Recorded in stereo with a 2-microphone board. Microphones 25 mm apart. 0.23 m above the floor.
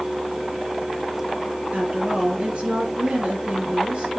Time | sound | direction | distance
1.7 | a woman speaking | 55° right (ahead or behind) | 4 m